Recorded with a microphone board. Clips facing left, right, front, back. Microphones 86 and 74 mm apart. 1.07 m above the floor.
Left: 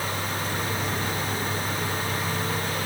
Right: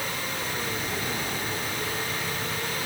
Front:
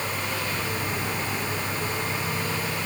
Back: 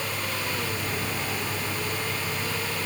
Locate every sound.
Only background noise.